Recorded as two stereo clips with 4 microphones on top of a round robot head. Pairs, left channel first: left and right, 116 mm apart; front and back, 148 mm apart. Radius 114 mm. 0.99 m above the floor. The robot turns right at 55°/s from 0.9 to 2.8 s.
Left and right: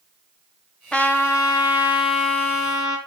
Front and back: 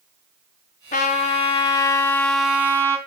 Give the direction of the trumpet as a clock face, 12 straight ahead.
12 o'clock.